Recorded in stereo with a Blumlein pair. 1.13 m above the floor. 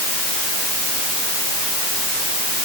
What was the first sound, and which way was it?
Only background noise.